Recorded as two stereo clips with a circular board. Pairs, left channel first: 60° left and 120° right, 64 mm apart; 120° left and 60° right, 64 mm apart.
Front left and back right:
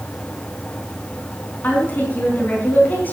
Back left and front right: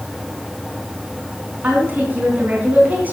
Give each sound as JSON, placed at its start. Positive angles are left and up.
{"t": 1.6, "sound": "a woman speaking", "azimuth_deg": 0, "distance_m": 3.5}